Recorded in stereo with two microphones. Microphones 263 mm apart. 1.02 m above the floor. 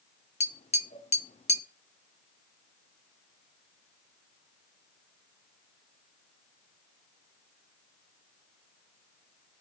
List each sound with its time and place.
0.4 s tapping: 25° left (ahead or behind), 0.5 m